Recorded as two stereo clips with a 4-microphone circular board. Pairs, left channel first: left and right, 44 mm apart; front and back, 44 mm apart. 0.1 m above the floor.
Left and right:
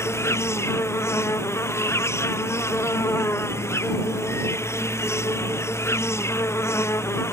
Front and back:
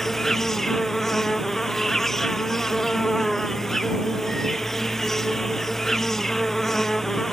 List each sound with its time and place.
0.0 s an insect: 85° left